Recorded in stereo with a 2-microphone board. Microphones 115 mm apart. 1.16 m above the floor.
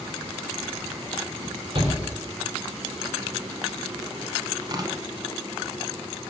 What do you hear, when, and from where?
1.8 s a shout: 50° right (ahead or behind), 3.5 m
4.6 s tearing paper: 40° right (ahead or behind), 1.8 m